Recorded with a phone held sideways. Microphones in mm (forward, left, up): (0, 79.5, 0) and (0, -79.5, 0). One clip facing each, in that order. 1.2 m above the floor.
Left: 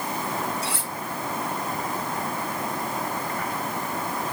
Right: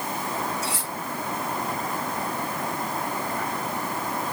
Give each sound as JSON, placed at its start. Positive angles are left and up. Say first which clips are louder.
{"t": 0.6, "sound": "cutlery clinking", "louder": "even", "side_deg": 65, "distance_m": 7.0}